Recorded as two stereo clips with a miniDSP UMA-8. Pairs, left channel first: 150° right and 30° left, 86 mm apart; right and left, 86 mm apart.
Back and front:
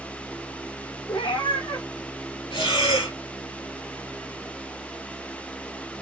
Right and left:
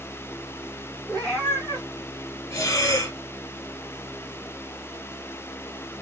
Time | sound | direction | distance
1.1 | a cat meowing | 175° right | 2.0 m
2.5 | breathing | 140° right | 1.1 m